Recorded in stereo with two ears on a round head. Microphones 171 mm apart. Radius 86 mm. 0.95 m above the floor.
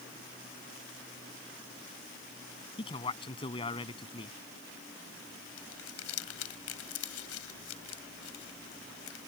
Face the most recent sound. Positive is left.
turn(degrees=85)